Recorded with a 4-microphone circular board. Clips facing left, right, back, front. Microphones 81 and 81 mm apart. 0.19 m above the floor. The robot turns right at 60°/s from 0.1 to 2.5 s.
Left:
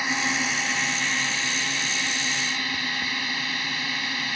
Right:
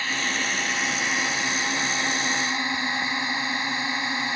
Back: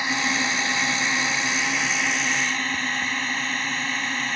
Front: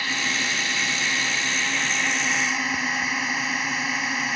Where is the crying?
No crying in this recording.